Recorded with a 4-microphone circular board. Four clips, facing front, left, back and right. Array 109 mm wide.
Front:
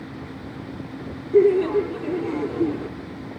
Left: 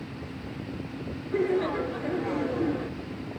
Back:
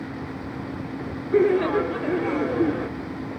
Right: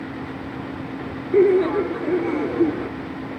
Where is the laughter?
175° right, 3 m.